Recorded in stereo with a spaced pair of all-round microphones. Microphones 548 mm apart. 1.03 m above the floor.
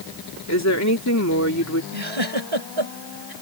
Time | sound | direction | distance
0.5 | a woman speaking | 30° left (ahead or behind) | ?
1.9 | a giggle | 55° right (ahead or behind) | ?